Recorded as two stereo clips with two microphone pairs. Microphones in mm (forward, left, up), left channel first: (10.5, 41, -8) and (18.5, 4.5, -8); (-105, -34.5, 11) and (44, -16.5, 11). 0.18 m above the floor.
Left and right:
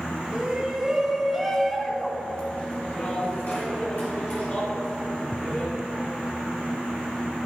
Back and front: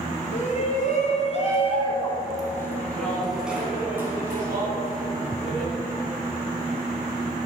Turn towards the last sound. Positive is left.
turn(degrees=65)